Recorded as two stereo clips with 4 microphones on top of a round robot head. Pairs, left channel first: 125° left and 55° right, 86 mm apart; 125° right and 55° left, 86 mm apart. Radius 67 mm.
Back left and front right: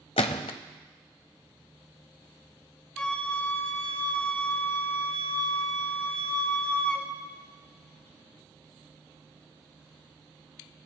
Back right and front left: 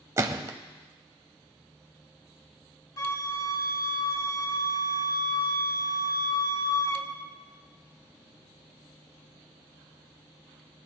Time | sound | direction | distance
0.2 | a gunshot | 110° left | 0.5 m
3.0 | a flute | 165° right | 1.8 m